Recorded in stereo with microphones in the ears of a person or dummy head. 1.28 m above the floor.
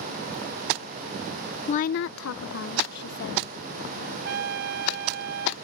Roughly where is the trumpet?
Right.